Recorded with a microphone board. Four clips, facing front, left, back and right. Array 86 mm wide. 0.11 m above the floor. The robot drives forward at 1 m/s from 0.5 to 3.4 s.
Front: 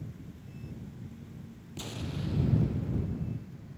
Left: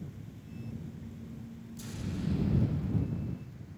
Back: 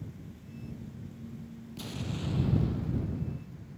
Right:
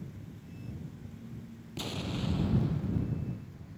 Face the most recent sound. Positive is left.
turn(degrees=-155)